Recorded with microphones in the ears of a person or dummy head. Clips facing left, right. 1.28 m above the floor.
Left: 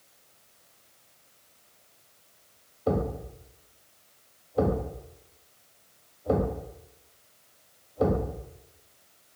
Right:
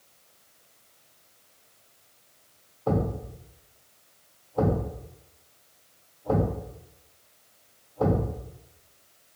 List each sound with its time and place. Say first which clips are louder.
2.9 s a thud: even; 20° left (ahead or behind), 1.4 m